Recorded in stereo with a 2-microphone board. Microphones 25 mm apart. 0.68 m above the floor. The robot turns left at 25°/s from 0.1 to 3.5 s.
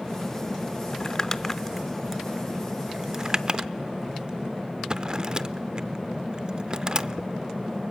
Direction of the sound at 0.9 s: 30° left (ahead or behind).